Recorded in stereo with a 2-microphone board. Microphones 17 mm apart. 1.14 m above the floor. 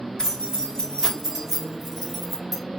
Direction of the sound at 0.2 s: 40° left (ahead or behind).